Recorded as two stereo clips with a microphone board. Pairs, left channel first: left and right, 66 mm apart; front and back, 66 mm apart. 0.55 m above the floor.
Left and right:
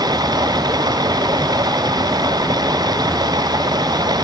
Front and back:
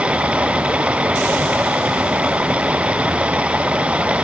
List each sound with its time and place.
0.0 s running water: 105° right